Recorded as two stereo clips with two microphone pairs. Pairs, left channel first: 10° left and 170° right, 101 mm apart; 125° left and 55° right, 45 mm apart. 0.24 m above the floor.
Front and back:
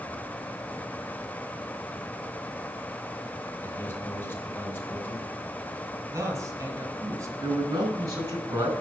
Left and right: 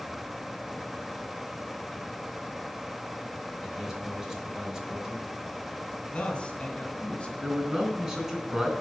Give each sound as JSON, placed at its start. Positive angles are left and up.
{"t": 3.6, "sound": "a man speaking", "azimuth_deg": -5, "distance_m": 1.5}
{"t": 6.1, "sound": "a man speaking", "azimuth_deg": 165, "distance_m": 1.6}
{"t": 7.4, "sound": "a man speaking", "azimuth_deg": -125, "distance_m": 3.0}